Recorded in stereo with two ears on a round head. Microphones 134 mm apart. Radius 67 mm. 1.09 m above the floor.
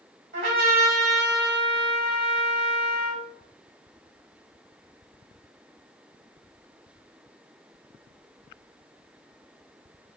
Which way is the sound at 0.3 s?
75° right (ahead or behind).